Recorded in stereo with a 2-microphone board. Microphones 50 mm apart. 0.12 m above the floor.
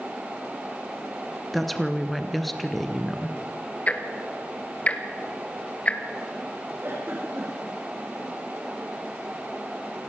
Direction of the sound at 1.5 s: Centre (ahead or behind).